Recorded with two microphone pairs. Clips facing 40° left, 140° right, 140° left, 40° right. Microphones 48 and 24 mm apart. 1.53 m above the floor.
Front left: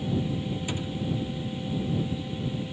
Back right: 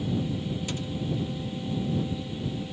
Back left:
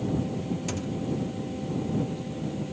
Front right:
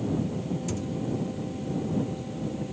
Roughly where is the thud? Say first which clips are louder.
Front left 1 dB, even; left.